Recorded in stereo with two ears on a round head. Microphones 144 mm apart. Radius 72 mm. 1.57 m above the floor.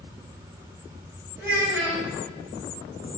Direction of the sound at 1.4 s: 15° right (ahead or behind).